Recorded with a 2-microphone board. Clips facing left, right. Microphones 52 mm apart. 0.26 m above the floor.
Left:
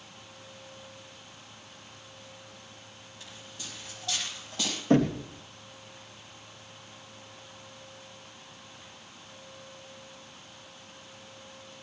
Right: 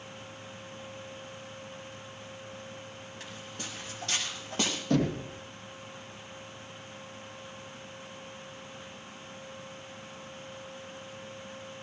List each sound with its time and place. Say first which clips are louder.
3.2 s footsteps: right 3 dB; 55° right (ahead or behind), 7.5 m; by 4.8 s 45° right (ahead or behind), 7.5 m
4.9 s knocking: left 5 dB; 35° left (ahead or behind), 3 m